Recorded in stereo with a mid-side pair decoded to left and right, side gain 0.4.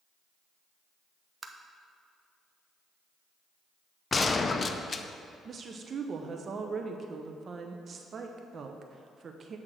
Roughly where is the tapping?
Ahead right.